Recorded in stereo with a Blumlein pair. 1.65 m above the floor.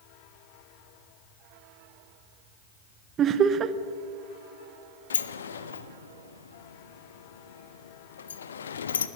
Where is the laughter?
30° right, 0.6 m.